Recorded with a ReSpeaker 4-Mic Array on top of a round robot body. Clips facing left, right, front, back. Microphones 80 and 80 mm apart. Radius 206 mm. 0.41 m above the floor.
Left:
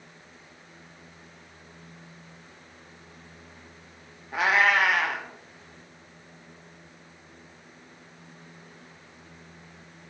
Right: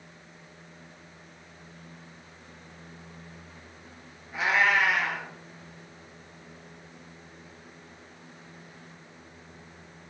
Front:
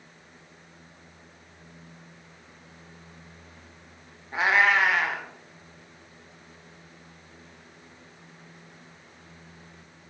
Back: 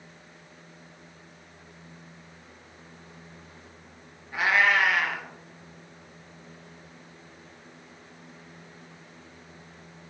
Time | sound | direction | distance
4.3 | a cat meowing | 60° left | 0.5 m